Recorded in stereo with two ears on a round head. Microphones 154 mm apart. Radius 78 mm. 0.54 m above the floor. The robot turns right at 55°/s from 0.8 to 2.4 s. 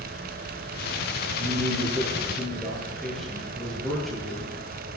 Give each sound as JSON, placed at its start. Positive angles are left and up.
{"t": 1.4, "sound": "a man speaking", "azimuth_deg": -55, "distance_m": 9.5}